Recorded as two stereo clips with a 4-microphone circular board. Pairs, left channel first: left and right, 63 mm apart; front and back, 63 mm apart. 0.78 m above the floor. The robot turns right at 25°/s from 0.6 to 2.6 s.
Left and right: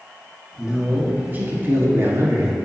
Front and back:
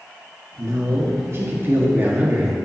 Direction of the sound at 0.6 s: 165° right.